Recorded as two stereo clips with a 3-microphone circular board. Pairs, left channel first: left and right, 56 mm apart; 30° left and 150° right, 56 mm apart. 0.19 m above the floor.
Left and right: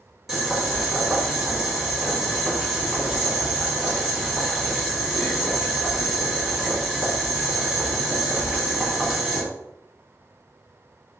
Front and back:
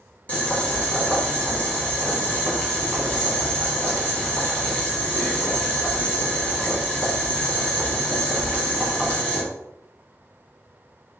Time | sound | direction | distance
0.3 | boiling | 10° right | 1.8 m